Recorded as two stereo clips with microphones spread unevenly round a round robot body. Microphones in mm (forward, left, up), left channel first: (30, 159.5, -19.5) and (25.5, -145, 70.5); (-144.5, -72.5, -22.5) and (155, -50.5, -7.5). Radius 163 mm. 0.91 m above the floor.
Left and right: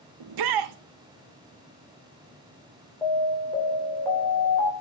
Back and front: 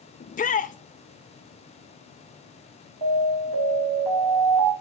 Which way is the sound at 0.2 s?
115° right.